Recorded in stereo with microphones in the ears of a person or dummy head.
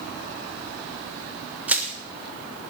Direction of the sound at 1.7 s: 5° right (ahead or behind).